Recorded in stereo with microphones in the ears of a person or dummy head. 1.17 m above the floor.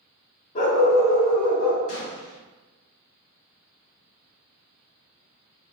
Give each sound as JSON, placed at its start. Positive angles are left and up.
{"t": 0.6, "sound": "a dog barking", "side_deg": 40, "distance_m": 1.0}
{"t": 1.9, "sound": "a gunshot", "side_deg": 70, "distance_m": 1.1}